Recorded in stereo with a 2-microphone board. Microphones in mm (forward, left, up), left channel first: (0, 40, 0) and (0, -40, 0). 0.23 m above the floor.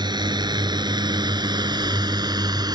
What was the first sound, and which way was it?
A drone, 70° right (ahead or behind).